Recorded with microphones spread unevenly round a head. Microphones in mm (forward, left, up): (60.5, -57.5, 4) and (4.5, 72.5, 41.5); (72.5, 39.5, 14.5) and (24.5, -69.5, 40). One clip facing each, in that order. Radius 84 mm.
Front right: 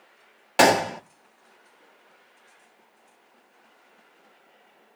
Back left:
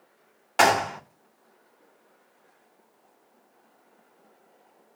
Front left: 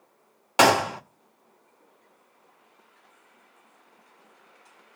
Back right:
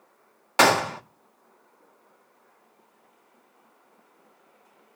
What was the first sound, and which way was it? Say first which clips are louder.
A gunshot: front right 3 dB, front left 1 dB; 10° right.